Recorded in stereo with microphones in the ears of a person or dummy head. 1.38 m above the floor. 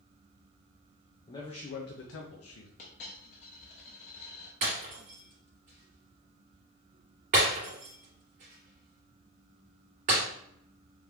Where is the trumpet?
I don't hear a trumpet.